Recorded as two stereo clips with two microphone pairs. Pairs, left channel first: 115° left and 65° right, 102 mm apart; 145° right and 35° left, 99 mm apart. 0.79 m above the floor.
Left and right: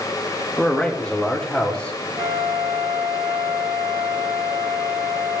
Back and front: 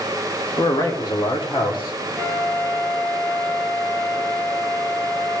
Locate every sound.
0.6 s a man speaking: 170° right, 1.4 m; by 2.0 s 165° right, 2.5 m
2.2 s a flute: 50° right, 2 m